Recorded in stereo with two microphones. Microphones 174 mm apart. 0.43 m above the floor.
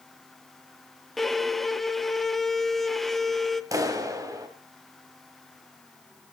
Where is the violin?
Centre (ahead or behind), 0.7 m.